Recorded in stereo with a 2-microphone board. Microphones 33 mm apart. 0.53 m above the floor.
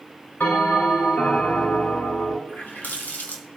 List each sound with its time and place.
0.4 s a bell: 80° left, 5 m
2.5 s a running tap: 80° left, 3 m